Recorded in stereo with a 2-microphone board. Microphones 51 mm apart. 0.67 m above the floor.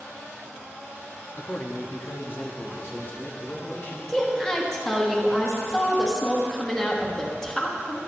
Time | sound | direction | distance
1.4 | a man speaking | 30° left (ahead or behind) | 0.6 m
4.1 | a woman speaking | 10° left (ahead or behind) | 1.1 m